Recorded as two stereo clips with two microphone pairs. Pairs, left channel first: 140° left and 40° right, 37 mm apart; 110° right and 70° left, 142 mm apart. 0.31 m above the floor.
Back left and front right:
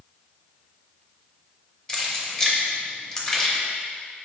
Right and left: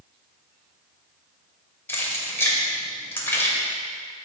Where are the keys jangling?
155° right, 0.6 m.